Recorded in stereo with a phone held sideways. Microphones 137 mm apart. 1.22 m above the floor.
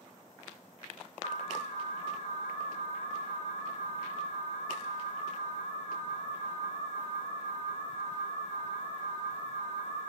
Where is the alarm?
55° left (ahead or behind), 0.9 m.